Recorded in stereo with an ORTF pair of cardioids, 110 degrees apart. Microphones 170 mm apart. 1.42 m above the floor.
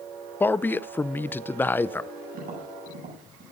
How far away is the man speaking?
About 0.5 m.